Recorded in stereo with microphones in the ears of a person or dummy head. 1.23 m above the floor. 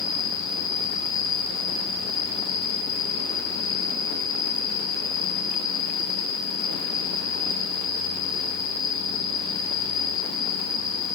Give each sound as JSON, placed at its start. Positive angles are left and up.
{"t": 0.0, "sound": "an insect", "side_deg": 5, "distance_m": 5.5}